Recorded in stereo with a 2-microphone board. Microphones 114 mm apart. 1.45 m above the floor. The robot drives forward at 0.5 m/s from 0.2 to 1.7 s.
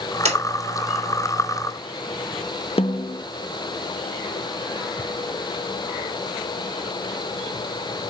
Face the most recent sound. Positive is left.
turn(degrees=60)  # may be behind; listen again after turning